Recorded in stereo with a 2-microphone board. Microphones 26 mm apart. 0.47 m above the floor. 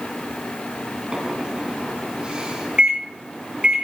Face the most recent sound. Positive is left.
turn(degrees=-40)  # may be behind; listen again after turning